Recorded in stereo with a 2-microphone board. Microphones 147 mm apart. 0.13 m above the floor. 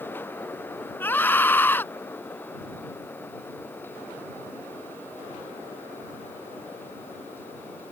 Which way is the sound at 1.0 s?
15° left (ahead or behind).